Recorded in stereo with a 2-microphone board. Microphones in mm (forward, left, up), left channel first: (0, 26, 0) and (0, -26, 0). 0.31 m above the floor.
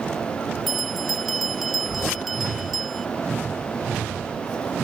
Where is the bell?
Centre (ahead or behind).